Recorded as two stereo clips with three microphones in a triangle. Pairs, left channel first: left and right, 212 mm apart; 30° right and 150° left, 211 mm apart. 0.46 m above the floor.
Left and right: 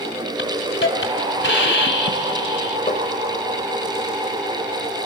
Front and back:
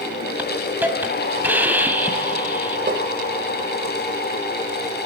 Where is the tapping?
140° left, 2 m.